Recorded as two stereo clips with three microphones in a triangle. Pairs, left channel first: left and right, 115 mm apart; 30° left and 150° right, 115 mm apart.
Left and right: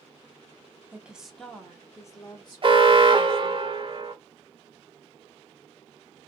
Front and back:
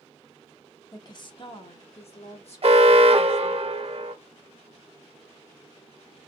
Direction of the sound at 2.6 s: 125° right.